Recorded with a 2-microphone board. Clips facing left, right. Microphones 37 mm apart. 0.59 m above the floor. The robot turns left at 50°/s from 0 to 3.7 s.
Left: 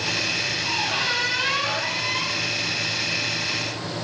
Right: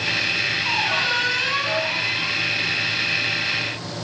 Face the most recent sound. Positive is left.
turn(degrees=50)